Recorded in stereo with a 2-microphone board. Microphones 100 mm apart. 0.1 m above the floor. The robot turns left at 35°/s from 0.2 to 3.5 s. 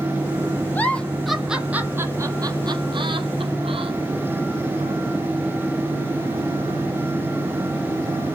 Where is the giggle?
20° left (ahead or behind), 0.7 m; by 3.9 s 70° right (ahead or behind), 0.7 m.